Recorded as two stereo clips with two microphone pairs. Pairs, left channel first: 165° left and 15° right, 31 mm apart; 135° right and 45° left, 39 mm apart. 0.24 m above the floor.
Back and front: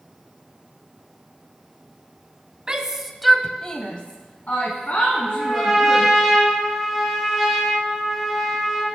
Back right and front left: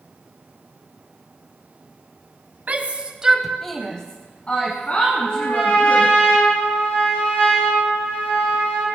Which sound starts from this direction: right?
A trumpet, at 5.1 s.